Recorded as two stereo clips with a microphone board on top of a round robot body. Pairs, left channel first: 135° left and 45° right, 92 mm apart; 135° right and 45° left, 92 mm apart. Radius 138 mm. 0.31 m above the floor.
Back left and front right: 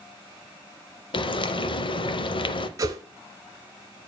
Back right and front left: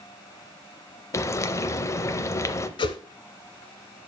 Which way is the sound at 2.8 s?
105° right.